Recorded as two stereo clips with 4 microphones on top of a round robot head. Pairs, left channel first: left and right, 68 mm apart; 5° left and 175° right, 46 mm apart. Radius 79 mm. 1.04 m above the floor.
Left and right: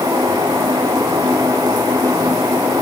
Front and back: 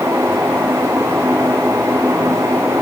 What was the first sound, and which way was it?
Only background noise.